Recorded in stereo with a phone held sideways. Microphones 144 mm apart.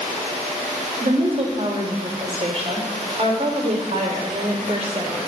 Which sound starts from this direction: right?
A woman speaking, at 1.0 s.